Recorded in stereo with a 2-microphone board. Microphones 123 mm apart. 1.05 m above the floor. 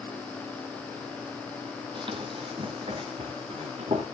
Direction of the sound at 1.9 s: 40° right (ahead or behind).